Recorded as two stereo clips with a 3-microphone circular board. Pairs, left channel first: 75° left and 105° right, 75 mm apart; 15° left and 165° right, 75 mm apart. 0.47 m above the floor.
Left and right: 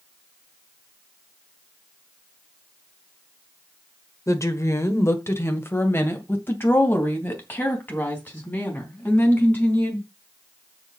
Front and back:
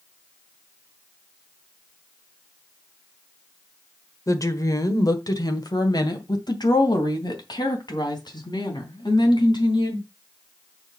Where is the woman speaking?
40° left, 1.3 m; by 10.1 s 5° left, 4.5 m.